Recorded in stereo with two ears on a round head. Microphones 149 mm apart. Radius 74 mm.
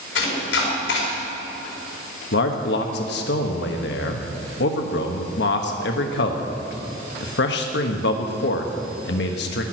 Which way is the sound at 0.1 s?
75° left (ahead or behind).